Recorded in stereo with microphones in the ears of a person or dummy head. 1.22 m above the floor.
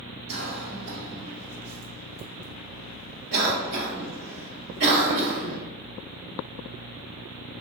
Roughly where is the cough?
Right.